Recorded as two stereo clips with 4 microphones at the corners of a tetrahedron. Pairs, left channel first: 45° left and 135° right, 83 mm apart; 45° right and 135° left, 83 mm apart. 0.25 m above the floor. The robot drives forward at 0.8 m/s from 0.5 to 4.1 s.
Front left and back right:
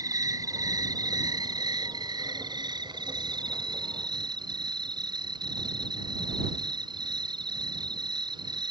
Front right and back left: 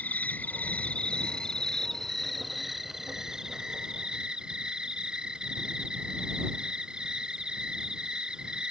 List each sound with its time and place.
0.0 s an insect: 110° right; by 8.7 s 145° right